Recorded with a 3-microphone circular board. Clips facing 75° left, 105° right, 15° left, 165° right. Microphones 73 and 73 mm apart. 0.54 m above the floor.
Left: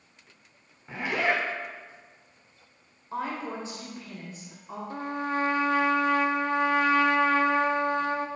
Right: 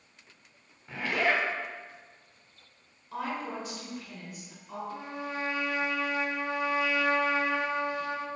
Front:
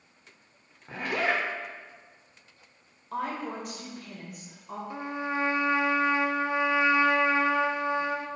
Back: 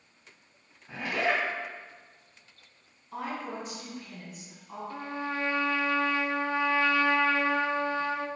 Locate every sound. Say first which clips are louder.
0.9 s a zipper: left 1 dB, front 1 dB; 5° left, 1.7 m
3.1 s a woman speaking: left 2 dB, front 3 dB; 20° left, 2 m
4.9 s a trumpet: left 10 dB, front 2 dB; 80° left, 0.6 m